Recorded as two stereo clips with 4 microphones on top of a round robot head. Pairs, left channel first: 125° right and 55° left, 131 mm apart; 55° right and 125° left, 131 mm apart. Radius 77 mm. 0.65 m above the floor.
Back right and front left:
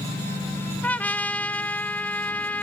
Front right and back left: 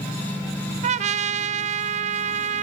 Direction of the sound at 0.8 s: 155° left.